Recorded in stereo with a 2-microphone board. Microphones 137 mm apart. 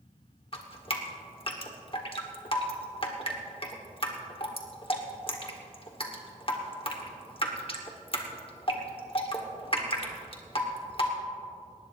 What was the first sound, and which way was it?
Dripping, 40° left (ahead or behind).